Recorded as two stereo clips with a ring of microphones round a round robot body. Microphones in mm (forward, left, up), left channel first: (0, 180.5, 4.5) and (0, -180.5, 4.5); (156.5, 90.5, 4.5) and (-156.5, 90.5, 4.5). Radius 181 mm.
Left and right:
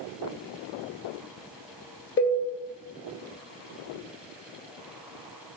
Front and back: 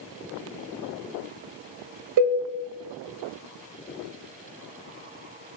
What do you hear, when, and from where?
2.2 s a cowbell: 150° left, 0.6 m